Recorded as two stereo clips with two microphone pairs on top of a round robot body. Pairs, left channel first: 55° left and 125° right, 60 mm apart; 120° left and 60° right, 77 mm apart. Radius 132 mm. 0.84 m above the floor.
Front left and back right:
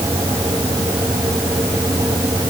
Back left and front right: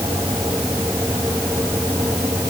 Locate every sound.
Only background noise.